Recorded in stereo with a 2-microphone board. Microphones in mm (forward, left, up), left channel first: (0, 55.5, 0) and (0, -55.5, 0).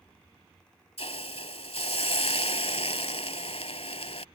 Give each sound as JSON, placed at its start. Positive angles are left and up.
{"t": 1.0, "sound": "a hiss", "side_deg": 65}